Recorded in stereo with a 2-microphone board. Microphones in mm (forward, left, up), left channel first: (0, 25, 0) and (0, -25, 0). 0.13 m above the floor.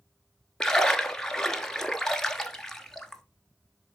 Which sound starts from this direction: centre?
A splash, at 0.6 s.